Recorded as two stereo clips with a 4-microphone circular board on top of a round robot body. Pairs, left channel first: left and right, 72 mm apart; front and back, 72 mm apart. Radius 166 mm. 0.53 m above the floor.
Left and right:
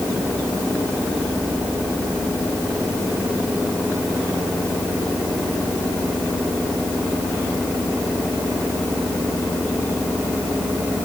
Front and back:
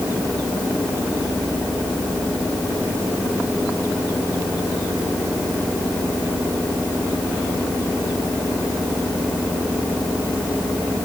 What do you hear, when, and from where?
Only background noise.